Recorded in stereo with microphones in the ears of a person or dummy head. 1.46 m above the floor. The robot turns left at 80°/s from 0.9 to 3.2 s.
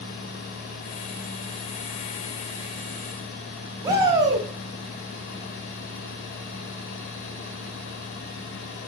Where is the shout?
20° right (ahead or behind), 0.8 m.